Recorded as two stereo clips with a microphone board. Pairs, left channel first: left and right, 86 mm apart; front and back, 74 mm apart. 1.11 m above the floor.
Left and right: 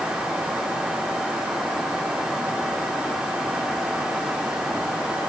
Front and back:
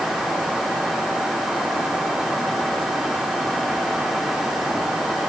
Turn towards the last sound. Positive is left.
No sound to turn to.